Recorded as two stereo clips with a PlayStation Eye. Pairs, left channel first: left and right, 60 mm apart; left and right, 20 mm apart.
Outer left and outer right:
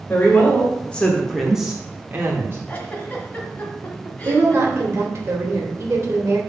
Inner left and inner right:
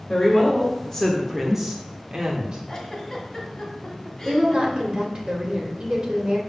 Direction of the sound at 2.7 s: 25° left (ahead or behind).